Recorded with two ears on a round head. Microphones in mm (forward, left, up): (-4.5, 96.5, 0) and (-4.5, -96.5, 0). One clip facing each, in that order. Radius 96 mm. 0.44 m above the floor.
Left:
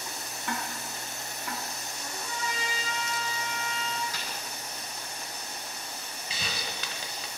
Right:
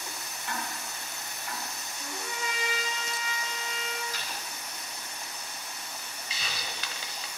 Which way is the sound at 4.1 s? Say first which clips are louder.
Left 1 dB; 45° left (ahead or behind).